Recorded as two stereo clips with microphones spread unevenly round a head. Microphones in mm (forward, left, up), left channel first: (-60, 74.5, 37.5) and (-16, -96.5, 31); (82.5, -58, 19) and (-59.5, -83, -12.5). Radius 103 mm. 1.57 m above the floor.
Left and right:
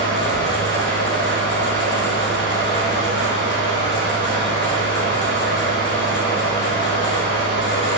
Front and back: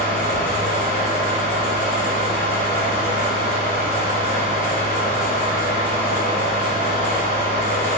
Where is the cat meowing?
I don't hear a cat meowing.